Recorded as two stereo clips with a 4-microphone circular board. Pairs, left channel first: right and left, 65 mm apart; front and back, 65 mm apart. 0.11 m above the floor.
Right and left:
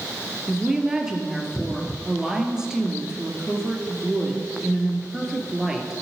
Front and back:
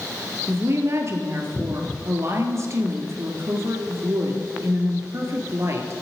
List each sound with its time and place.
0.5 s a woman speaking: 165° left, 1.5 m